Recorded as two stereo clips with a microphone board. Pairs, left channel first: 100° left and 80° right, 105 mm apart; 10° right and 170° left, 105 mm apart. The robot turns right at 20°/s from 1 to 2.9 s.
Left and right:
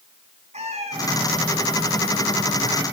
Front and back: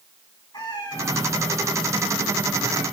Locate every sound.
0.5 s a cat meowing: 65° right, 6.5 m; by 2.8 s 30° right, 6.5 m